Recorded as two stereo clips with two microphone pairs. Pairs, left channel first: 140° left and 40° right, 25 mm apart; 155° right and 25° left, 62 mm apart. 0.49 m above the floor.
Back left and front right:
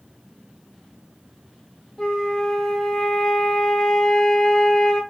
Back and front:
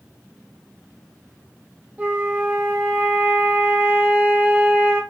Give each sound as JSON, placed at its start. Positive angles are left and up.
{"t": 2.0, "sound": "a flute", "azimuth_deg": 75, "distance_m": 0.8}